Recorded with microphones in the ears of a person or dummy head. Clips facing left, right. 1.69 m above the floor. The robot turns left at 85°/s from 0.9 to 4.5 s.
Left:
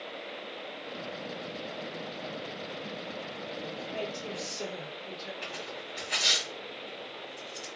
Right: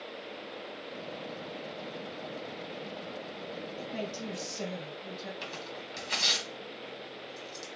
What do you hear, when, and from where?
3.8 s a woman speaking: 45° right, 1.7 m; by 5.3 s 105° right, 1.7 m
5.4 s tearing paper: 55° right (ahead or behind), 1.4 m